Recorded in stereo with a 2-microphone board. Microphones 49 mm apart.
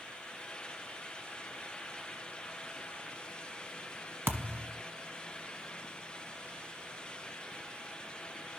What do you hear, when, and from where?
4.3 s a thud: 50° right (ahead or behind), 1.3 m